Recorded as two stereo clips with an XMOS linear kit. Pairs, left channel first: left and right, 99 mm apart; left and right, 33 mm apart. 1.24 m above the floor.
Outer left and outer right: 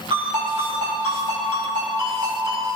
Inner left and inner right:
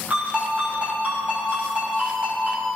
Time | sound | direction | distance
0.1 | a ringtone | 55° right (ahead or behind) | 5.5 m